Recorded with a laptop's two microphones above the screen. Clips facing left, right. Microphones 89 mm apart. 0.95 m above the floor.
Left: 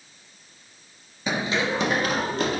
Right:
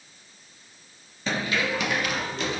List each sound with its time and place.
1.3 s running footsteps: 15° left (ahead or behind), 0.9 m; by 2.6 s 50° left (ahead or behind), 1.7 m